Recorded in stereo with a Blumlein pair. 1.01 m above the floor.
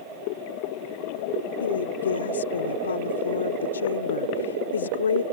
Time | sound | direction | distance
1.6 | a woman speaking | 70° left | ?